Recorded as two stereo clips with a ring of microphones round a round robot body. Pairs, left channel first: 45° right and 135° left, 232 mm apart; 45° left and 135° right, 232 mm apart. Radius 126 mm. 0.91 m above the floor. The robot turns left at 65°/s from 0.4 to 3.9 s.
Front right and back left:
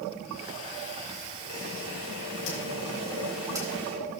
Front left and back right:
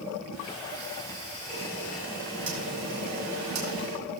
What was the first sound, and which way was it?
A camera shutter, 15° right.